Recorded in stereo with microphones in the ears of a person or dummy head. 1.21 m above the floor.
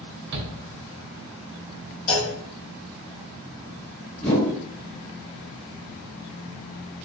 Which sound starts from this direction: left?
A clunk, at 2.1 s.